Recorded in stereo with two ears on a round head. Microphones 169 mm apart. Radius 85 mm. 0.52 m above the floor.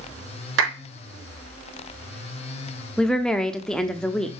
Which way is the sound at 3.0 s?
5° left (ahead or behind).